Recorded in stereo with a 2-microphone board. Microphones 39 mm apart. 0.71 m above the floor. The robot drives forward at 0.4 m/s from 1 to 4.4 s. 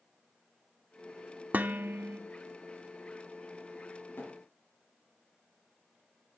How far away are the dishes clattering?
About 0.9 m.